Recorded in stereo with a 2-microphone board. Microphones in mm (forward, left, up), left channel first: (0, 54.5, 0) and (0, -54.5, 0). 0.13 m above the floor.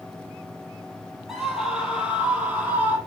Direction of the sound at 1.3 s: 5° right (ahead or behind).